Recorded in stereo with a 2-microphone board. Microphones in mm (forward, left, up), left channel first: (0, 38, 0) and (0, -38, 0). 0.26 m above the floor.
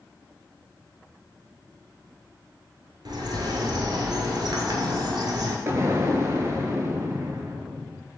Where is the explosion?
40° right (ahead or behind), 0.6 m.